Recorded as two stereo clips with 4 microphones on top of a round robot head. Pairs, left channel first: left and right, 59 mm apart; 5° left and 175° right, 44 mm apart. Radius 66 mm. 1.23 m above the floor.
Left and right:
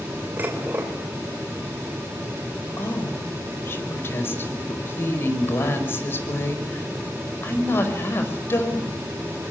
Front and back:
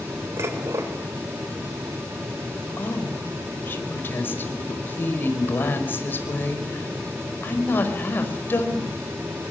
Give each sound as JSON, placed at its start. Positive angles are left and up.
{"t": 0.4, "sound": "dishes clattering", "azimuth_deg": -155, "distance_m": 3.5}
{"t": 2.8, "sound": "a woman speaking", "azimuth_deg": 40, "distance_m": 5.0}